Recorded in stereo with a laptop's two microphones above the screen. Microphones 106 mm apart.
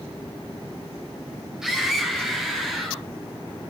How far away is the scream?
About 4 m.